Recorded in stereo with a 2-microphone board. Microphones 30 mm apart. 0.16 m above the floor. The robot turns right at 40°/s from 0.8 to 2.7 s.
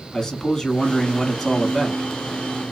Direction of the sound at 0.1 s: 15° left (ahead or behind).